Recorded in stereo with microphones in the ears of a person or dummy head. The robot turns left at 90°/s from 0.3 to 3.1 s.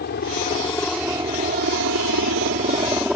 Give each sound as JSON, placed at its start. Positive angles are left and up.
{"t": 0.0, "sound": "a helicopter", "side_deg": 55}